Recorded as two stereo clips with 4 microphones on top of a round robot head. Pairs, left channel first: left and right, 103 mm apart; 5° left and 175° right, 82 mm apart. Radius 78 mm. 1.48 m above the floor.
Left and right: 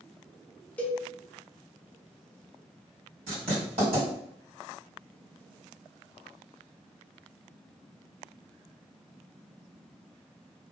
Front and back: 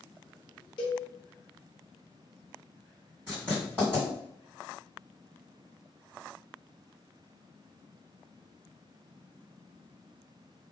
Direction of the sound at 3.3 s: 105° right.